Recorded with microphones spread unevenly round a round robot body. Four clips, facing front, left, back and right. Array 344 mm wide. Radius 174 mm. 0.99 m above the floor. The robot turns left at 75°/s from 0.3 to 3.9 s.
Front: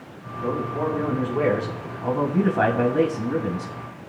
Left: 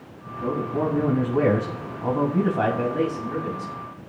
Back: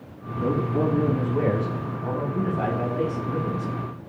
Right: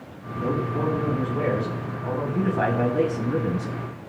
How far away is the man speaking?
About 2 m.